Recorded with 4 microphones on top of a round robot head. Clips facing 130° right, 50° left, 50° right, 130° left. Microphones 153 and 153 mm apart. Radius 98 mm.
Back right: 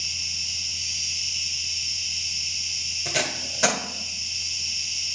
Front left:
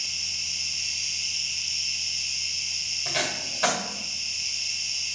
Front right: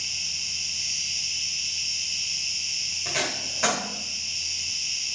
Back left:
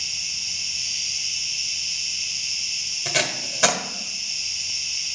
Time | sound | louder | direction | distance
0.0 | an insect | back right 2 dB, even | 80° right | 1.1 m
3.0 | tape being pulled | back right 2 dB, back left 4 dB | 175° right | 1.3 m